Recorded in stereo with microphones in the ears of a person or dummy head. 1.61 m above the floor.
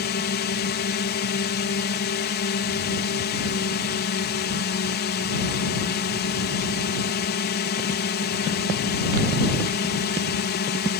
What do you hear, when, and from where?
0.0 s a drone: 45° left (ahead or behind)